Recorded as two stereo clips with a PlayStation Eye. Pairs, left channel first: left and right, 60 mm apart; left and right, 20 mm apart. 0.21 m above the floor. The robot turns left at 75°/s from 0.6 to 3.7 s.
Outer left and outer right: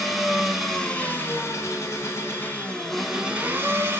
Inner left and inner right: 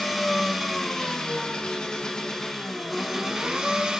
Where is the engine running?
Straight behind, 0.9 m; by 4.0 s 55° right, 0.9 m.